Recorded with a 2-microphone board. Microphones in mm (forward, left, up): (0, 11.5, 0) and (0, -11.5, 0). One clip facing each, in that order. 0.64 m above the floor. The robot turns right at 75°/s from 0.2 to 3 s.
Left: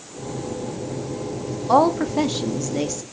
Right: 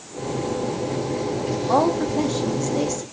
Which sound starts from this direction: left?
A woman speaking, at 1.7 s.